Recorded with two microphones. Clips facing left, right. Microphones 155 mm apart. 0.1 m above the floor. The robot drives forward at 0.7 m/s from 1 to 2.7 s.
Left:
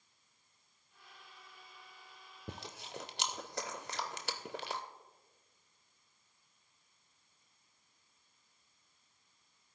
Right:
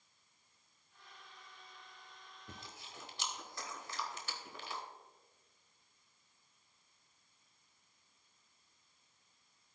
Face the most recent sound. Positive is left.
turn(degrees=75)  # may be behind; listen again after turning